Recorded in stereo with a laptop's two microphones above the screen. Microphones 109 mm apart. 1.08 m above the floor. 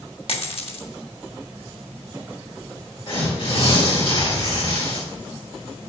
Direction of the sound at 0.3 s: 60° left (ahead or behind).